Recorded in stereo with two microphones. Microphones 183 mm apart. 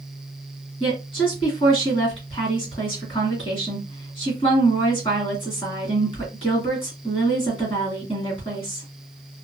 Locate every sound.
0.8 s a woman speaking: 30° left (ahead or behind), 2.0 m